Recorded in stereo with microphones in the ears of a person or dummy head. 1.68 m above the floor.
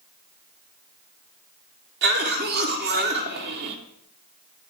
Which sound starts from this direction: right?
A cough, at 2.0 s.